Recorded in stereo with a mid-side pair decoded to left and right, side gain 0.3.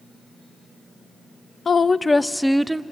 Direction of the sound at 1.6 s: 55° left.